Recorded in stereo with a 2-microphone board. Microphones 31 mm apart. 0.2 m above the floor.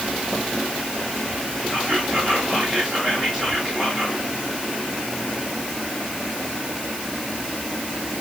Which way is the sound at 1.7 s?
15° left (ahead or behind).